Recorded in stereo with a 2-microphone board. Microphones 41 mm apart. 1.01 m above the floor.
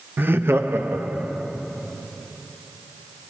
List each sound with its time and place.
0.2 s laughter: 50° right (ahead or behind), 0.5 m; by 1.5 s 60° right (ahead or behind), 1.6 m